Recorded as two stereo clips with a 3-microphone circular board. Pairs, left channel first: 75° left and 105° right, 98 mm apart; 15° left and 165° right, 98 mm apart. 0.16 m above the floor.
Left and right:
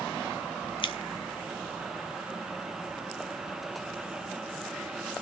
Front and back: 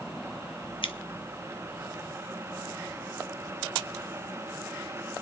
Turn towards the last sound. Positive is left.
turn(degrees=45)